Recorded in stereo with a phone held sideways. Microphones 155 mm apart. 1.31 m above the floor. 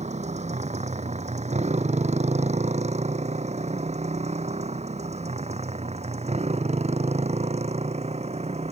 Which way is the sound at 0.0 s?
45° right (ahead or behind).